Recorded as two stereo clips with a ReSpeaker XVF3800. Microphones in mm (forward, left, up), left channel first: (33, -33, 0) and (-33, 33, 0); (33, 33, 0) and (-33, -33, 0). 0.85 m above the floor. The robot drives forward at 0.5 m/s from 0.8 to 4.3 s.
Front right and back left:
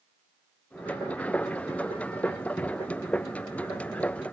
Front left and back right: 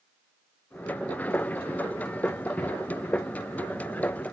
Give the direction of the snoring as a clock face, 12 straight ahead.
I don't hear snoring.